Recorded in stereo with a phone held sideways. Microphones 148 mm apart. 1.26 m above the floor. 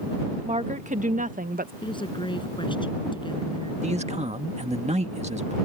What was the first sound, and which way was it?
A woman speaking, 50° right (ahead or behind).